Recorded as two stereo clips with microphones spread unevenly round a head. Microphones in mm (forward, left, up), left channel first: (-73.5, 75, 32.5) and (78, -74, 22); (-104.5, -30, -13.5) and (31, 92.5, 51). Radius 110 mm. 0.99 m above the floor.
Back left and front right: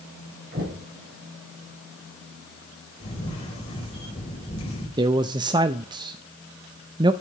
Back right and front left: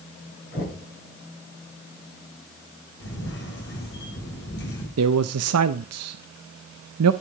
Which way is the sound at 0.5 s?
90° right.